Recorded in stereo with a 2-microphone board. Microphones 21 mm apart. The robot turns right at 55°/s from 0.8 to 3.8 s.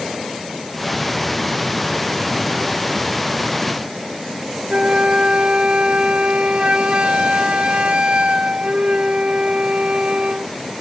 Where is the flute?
60° right (ahead or behind).